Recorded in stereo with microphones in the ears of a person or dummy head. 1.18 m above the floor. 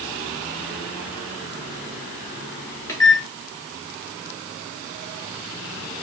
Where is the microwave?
15° left (ahead or behind), 1.2 m.